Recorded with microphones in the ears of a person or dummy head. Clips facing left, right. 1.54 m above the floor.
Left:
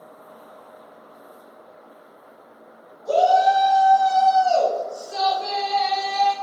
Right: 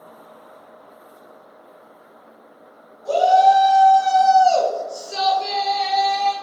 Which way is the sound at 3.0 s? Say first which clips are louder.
Right 2 dB; 50° right (ahead or behind).